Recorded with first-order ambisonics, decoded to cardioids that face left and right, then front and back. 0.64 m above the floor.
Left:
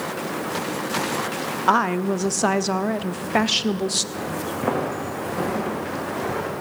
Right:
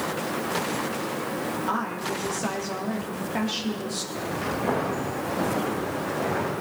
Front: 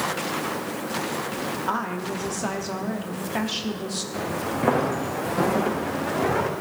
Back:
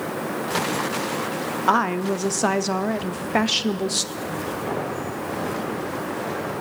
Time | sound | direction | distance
1.7 | a woman speaking | 130° left | 0.8 m
4.1 | footsteps | 45° left | 4 m